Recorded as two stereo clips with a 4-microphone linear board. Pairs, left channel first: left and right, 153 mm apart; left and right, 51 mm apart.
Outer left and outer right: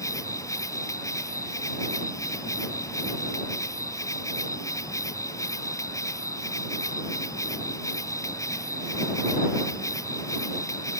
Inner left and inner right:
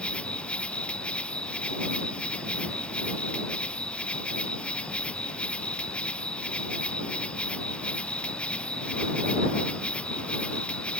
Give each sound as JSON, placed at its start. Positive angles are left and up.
{"t": 0.0, "sound": "an insect", "side_deg": 20}